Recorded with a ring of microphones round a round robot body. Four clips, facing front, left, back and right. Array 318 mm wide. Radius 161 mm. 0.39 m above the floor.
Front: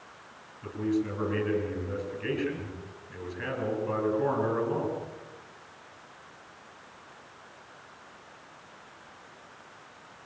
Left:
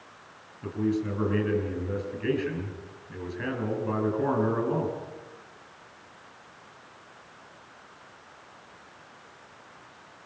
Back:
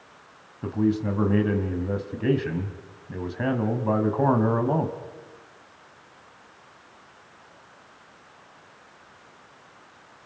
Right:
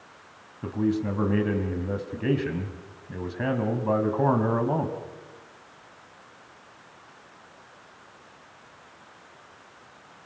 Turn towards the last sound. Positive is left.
turn(degrees=-150)